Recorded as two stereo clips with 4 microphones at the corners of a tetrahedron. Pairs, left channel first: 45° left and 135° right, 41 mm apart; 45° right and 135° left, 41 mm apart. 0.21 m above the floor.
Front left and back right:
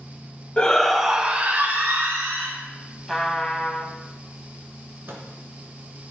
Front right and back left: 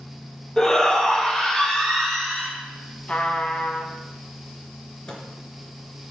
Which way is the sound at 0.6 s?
5° left.